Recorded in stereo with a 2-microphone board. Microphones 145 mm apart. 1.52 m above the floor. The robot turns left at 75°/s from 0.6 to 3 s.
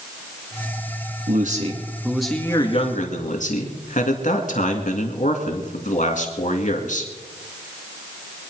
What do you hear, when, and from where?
1.3 s a man speaking: 110° right, 2.5 m; by 7.1 s 120° left, 2.5 m